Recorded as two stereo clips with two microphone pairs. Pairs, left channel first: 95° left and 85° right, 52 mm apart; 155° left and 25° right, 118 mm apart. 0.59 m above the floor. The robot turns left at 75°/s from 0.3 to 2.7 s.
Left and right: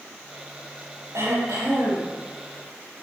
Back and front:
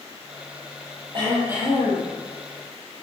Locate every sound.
1.1 s throat clearing: 65° right, 8 m; by 2.1 s 140° right, 8 m